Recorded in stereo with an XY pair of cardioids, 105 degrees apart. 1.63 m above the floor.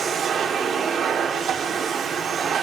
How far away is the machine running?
About 3.5 m.